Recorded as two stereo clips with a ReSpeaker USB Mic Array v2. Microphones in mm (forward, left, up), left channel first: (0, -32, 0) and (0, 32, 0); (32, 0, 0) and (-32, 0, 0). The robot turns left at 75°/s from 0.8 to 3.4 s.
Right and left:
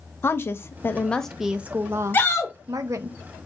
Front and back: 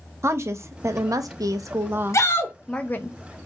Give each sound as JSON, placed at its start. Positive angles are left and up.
{"t": 0.2, "sound": "a woman speaking", "azimuth_deg": -140, "distance_m": 0.6}
{"t": 2.1, "sound": "a shout", "azimuth_deg": -35, "distance_m": 1.0}